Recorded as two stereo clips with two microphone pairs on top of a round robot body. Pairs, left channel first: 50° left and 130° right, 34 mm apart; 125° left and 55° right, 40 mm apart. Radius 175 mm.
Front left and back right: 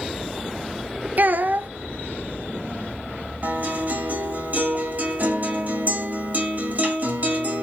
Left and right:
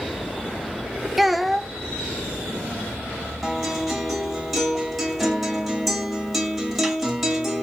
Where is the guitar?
140° right, 2 m.